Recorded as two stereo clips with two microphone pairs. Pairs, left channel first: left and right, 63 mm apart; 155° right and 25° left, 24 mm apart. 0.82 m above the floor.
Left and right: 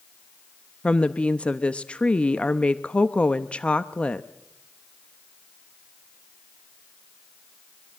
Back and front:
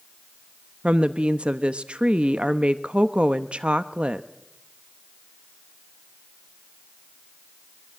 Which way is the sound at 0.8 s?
25° left.